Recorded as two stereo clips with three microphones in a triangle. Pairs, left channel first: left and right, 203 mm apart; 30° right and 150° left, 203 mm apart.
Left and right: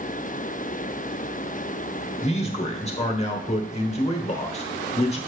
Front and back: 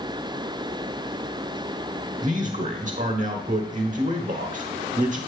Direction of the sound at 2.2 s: 130° left.